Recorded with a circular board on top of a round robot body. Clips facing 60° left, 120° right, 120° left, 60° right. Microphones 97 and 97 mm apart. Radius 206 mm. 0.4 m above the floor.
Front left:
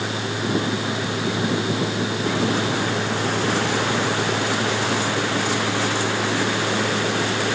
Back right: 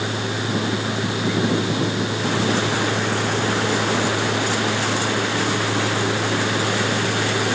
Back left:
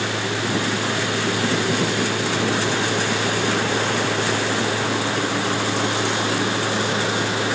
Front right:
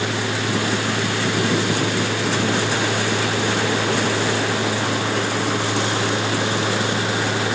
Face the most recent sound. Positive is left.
No sound to turn to.